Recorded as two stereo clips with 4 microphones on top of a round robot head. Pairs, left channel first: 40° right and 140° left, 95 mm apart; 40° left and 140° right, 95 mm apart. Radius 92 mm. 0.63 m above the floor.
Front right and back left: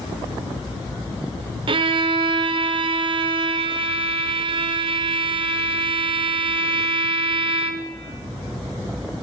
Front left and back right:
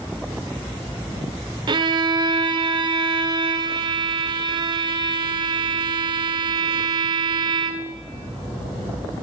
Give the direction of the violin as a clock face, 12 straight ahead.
6 o'clock.